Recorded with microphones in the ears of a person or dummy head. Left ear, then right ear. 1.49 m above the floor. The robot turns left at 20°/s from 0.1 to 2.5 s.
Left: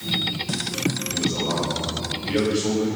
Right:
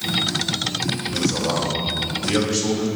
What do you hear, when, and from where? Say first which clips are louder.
1.1 s a man speaking: right 4 dB; 50° right (ahead or behind), 6 m; by 2.9 s 80° right, 6 m